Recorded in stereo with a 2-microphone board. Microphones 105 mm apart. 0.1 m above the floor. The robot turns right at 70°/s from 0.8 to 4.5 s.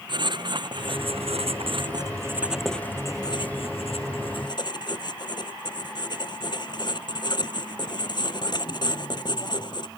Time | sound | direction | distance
0.1 | writing | 130° right | ?